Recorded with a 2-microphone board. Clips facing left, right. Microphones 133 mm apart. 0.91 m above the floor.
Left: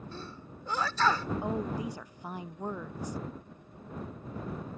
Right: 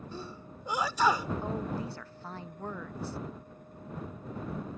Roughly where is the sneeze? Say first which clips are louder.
Right 2 dB; centre.